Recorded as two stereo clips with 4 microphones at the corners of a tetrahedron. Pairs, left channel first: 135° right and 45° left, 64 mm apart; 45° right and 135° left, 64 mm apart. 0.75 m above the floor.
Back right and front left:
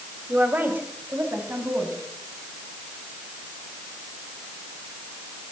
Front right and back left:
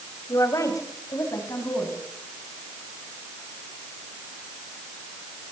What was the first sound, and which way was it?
A woman speaking, 15° right.